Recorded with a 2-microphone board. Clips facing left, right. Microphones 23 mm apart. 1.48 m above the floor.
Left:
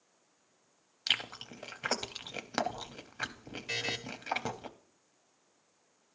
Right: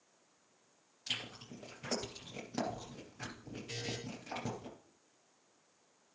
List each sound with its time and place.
1.1 s chewing: 70° left (ahead or behind), 0.6 m
3.7 s a buzzer: 70° left (ahead or behind), 0.7 m